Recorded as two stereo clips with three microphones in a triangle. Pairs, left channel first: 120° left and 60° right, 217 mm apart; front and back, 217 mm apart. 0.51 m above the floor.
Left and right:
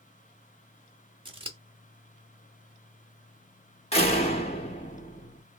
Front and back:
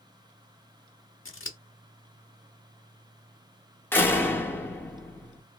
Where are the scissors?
5° left, 0.8 m.